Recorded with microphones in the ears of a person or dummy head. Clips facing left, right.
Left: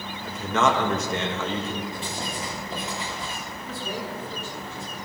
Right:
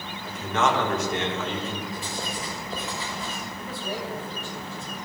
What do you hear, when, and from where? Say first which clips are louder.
0.2 s a man speaking: left 2 dB; 70° left (ahead or behind), 1.9 m
1.9 s writing: even; 30° left (ahead or behind), 3.5 m
3.6 s a man speaking: even; 35° left (ahead or behind), 4.5 m